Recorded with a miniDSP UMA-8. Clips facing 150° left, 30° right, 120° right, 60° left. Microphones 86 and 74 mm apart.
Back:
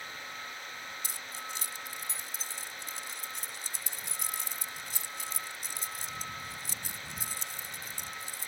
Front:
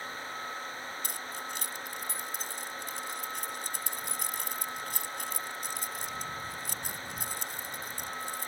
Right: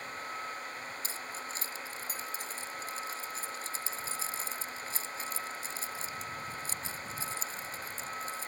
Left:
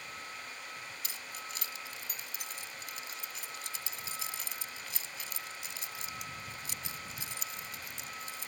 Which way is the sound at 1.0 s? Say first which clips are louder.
Front 3 dB, right 4 dB; 65° right.